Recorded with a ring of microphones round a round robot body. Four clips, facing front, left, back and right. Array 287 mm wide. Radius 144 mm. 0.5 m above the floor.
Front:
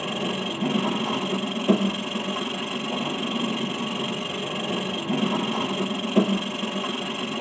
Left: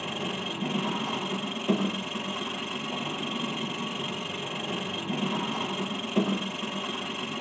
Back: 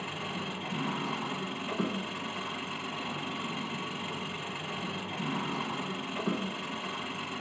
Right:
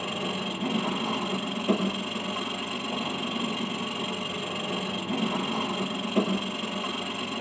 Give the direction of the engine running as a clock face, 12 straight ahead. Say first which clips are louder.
Right 2 dB, front 9 dB; 12 o'clock.